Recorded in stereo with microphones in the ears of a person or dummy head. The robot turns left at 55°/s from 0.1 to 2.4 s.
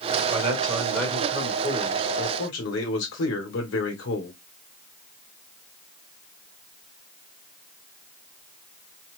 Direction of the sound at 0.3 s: 145° right.